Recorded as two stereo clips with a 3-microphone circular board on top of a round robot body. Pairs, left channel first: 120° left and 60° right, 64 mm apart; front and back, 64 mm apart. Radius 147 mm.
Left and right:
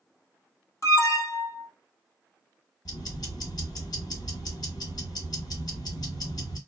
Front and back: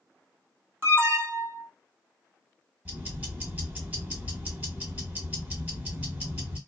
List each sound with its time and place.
0.8 s an alarm: 135° left, 1.3 m
2.9 s ticking: 110° left, 1.4 m